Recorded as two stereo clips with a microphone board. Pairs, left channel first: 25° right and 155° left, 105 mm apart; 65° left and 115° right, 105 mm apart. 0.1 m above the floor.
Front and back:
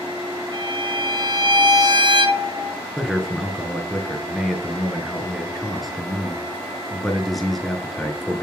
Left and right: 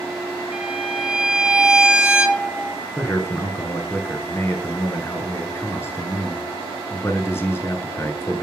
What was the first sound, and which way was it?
A violin, 170° left.